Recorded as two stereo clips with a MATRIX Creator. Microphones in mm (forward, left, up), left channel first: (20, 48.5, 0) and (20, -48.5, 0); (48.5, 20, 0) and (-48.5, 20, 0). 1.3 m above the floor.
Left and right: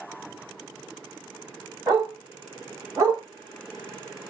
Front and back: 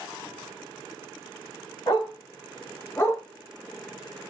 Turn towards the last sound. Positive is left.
turn(degrees=-60)